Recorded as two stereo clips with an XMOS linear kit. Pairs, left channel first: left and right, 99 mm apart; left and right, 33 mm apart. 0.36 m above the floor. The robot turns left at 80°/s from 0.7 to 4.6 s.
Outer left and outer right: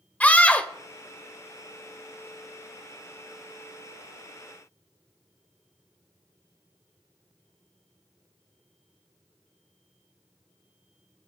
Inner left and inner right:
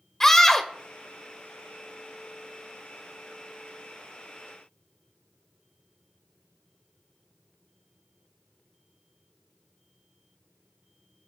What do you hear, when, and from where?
0.2 s a scream: 15° left (ahead or behind), 1.0 m